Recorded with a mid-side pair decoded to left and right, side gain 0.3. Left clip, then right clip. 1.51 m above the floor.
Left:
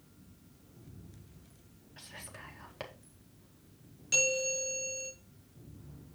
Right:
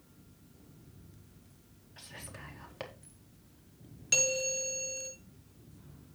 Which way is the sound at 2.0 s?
5° right.